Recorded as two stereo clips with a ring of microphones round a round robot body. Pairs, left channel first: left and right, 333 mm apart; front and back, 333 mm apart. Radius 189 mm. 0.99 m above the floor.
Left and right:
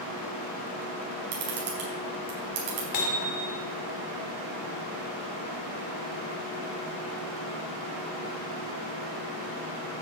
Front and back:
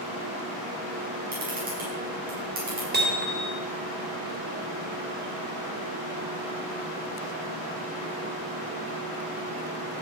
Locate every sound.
1.3 s a camera shutter: 115° right, 5 m
2.9 s hammering: 120° left, 2.5 m